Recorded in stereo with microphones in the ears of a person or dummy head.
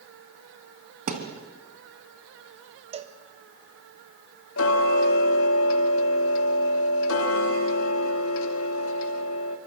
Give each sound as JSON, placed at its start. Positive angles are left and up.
{"t": 1.1, "sound": "a thud", "side_deg": -40, "distance_m": 3.0}
{"t": 2.9, "sound": "a cowbell", "side_deg": -25, "distance_m": 1.4}
{"t": 4.6, "sound": "ticking", "side_deg": 75, "distance_m": 2.5}